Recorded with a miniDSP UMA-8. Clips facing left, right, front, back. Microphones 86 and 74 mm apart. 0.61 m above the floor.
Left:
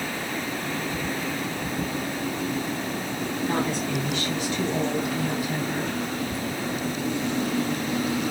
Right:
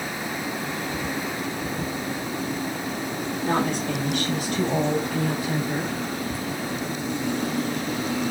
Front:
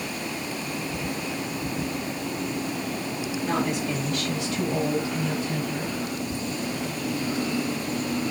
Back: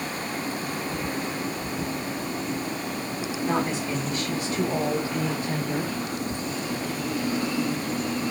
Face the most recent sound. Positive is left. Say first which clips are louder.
# even, even
turn(degrees=-110)